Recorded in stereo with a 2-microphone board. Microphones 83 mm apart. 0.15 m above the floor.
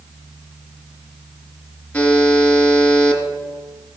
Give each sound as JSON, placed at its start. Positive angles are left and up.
{"t": 1.9, "sound": "a buzzer", "side_deg": 15, "distance_m": 1.7}